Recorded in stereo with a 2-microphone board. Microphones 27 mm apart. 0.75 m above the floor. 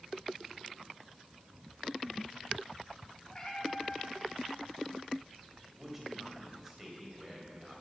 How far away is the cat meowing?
About 2.5 m.